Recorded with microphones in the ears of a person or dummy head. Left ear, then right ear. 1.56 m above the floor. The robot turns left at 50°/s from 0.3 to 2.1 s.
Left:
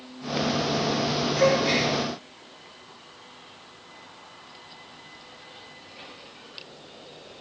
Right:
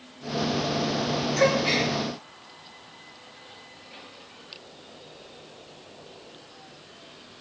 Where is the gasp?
40° right (ahead or behind), 2.5 m; by 1.9 s 15° right (ahead or behind), 2.5 m.